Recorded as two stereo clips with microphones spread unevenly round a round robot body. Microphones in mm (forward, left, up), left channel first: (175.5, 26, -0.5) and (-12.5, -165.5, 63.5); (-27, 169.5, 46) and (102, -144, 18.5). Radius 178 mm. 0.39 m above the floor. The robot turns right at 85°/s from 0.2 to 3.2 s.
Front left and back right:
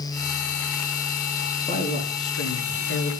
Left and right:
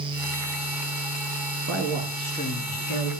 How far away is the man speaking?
About 4.5 m.